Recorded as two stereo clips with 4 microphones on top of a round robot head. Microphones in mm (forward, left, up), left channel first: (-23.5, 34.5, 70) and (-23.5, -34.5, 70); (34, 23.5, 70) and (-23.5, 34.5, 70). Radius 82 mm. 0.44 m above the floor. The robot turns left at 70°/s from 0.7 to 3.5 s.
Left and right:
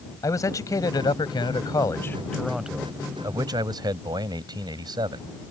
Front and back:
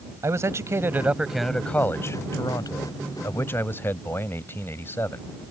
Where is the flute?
I don't hear a flute.